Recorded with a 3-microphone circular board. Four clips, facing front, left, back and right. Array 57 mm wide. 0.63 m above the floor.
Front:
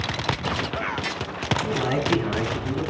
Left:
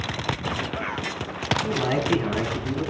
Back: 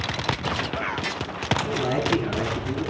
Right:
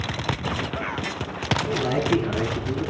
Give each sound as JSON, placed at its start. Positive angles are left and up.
{"t": 1.6, "sound": "a man speaking", "azimuth_deg": 60, "distance_m": 4.5}